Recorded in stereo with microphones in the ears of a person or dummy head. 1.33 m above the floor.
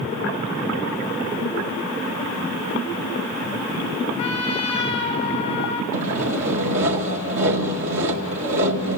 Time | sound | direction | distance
4.2 | a trumpet | 35° left (ahead or behind) | 3 m
5.9 | sawing | 70° right (ahead or behind) | 2 m